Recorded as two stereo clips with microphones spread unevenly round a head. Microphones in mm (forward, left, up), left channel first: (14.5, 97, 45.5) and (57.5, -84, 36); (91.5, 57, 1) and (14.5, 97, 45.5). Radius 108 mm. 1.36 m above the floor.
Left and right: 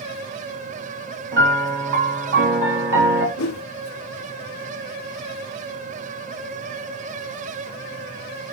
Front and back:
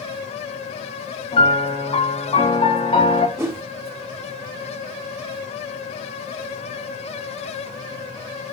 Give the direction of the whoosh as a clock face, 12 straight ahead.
8 o'clock.